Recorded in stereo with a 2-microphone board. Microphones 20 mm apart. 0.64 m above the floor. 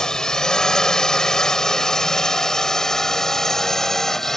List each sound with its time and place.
0.0 s a drone: 30° left (ahead or behind); by 4.4 s 15° left (ahead or behind)